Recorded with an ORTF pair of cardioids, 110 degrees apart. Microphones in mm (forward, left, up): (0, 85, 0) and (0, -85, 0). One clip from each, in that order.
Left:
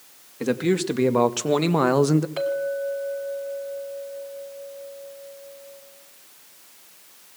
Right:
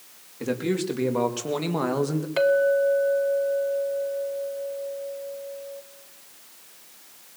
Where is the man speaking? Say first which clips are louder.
Left 4 dB; 30° left, 3 m; by 2.3 s 50° left, 1.4 m.